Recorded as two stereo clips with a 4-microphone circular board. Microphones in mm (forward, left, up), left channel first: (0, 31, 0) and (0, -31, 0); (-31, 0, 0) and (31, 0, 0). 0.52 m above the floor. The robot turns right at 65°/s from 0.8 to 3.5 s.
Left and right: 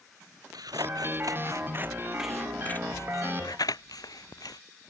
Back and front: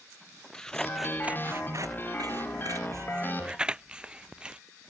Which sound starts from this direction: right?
Scissors, at 0.5 s.